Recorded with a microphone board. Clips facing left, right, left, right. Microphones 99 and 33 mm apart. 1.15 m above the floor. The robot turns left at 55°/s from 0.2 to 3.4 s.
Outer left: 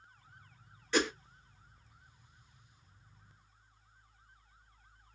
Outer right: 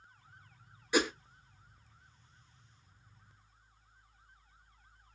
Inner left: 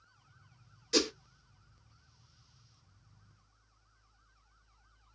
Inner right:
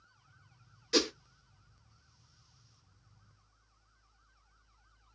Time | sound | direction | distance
0.9 | a whoosh | 15° right (ahead or behind) | 0.7 m